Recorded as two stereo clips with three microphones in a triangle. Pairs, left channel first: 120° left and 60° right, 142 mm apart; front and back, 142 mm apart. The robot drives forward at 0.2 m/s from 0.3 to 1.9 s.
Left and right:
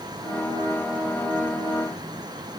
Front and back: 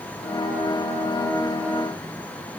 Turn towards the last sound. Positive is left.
No sound to turn to.